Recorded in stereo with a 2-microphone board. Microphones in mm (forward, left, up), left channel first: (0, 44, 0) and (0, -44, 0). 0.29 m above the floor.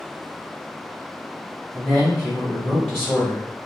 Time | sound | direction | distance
1.7 | a man speaking | 10° left (ahead or behind) | 1.0 m